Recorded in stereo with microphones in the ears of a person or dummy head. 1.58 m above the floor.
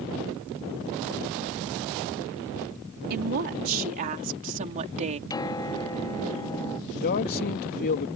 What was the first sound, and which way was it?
A woman speaking, 55° right (ahead or behind).